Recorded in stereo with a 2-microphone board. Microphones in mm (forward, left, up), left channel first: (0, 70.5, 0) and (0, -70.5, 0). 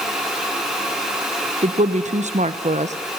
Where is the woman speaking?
55° right (ahead or behind), 0.9 m.